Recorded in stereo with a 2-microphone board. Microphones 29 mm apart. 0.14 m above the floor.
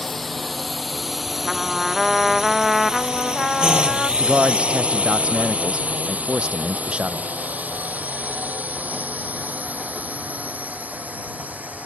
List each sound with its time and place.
0.0 s a drone: 10° left (ahead or behind); by 11.9 s 80° right
1.4 s a trumpet: centre (ahead or behind)
4.2 s a man speaking: 50° right (ahead or behind)